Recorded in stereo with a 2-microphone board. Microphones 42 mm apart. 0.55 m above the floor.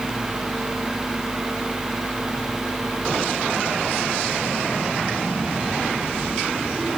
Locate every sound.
Only background noise.